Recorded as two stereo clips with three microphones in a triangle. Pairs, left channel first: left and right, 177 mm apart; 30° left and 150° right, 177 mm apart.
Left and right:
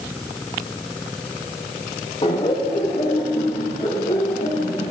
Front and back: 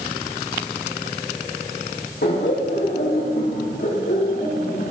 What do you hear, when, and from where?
2.2 s laughter: 35° left, 1.8 m; by 4.9 s 45° left, 4 m